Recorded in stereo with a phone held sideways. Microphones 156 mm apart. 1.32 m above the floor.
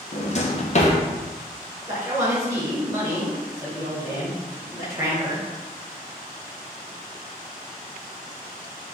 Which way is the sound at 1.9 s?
20° right (ahead or behind).